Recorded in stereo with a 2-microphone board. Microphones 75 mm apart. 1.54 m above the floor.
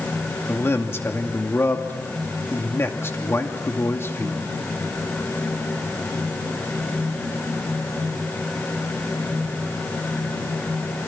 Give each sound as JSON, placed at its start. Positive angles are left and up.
{"t": 0.5, "sound": "a man speaking", "side_deg": 35, "distance_m": 2.5}